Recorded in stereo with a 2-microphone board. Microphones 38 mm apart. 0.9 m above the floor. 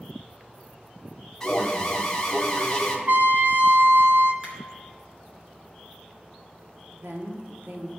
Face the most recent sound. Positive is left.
turn(degrees=-80)